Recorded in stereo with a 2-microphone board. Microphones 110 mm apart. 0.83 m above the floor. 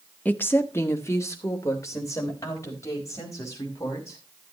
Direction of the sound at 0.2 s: 15° left (ahead or behind).